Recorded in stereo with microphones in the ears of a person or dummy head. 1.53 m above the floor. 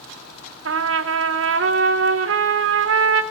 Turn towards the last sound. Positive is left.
turn(degrees=-65)  # may be behind; listen again after turning